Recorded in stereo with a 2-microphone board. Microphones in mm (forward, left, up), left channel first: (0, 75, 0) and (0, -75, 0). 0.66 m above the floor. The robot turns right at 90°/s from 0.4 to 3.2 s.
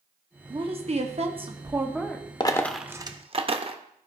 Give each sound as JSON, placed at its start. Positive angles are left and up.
{"t": 0.5, "sound": "a woman speaking", "azimuth_deg": -140, "distance_m": 0.8}
{"t": 2.4, "sound": "a dropped coin", "side_deg": 30, "distance_m": 0.5}